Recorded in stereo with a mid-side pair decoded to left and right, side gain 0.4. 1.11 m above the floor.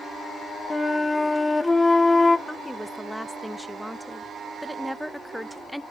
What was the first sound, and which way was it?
A flute, 20° left.